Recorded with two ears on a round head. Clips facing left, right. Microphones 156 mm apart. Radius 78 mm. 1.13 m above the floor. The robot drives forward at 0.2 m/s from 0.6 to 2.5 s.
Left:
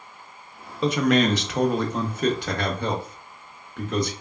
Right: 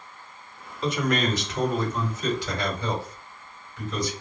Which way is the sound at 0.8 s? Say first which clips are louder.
Left 5 dB; 65° left (ahead or behind).